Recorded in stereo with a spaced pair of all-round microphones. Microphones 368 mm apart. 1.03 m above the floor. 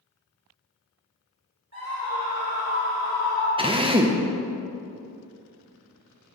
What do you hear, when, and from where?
1.7 s a scream: 45° right (ahead or behind), 3 m; by 3.5 s 70° right (ahead or behind), 3 m
3.6 s a drill: 15° right (ahead or behind), 0.7 m